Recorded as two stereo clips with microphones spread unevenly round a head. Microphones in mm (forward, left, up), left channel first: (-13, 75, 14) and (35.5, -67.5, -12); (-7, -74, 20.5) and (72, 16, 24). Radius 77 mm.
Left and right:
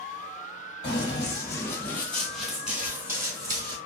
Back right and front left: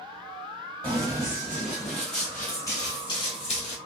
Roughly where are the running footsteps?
Left.